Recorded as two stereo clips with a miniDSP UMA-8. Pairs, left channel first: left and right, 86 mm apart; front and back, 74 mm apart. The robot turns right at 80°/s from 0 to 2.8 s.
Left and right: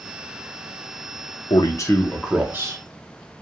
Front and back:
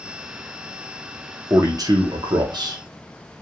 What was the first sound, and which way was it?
A man speaking, 120° left.